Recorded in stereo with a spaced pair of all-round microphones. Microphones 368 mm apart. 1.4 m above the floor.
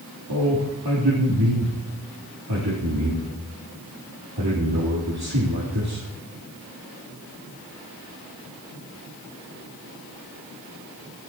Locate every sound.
0.3 s a man speaking: 80° right, 3.5 m